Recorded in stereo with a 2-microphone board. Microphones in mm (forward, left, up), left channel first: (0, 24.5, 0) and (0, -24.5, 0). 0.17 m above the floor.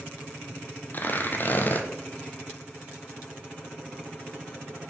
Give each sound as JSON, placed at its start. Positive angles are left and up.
{"t": 0.9, "sound": "tearing paper", "side_deg": 40, "distance_m": 1.1}